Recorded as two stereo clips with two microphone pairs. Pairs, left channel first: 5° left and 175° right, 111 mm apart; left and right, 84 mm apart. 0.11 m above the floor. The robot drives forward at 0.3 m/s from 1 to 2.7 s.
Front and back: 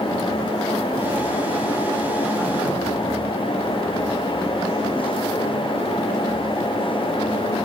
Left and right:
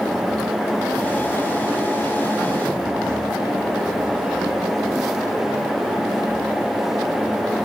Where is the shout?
No shout in this recording.